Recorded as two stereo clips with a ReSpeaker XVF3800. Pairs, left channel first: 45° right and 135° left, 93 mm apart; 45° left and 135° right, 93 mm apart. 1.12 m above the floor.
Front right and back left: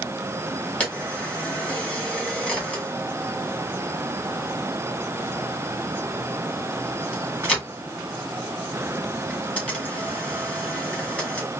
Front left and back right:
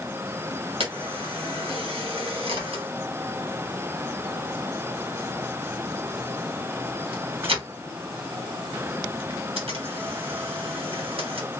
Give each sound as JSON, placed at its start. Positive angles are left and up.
{"t": 0.8, "sound": "a camera shutter", "azimuth_deg": -125, "distance_m": 1.7}